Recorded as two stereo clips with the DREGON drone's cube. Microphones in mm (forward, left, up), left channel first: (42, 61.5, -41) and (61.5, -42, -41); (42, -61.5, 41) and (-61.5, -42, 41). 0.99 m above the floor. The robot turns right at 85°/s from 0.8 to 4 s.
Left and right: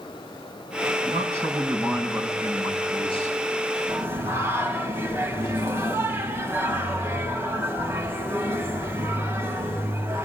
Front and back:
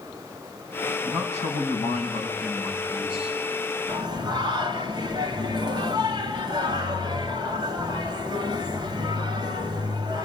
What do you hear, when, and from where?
1.0 s a man speaking: 40° right, 7.5 m; by 3.4 s 160° left, 7.5 m
3.9 s singing: 155° right, 3.5 m; by 10.2 s 145° right, 3.5 m